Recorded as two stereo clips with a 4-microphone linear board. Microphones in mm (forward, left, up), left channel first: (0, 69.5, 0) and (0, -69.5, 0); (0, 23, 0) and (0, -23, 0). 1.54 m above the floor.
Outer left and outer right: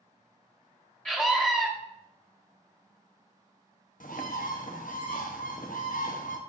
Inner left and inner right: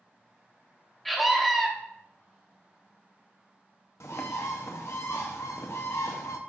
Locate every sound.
1.1 s a scream: 5° left (ahead or behind), 0.8 m
4.0 s a bird: 75° left (ahead or behind), 0.8 m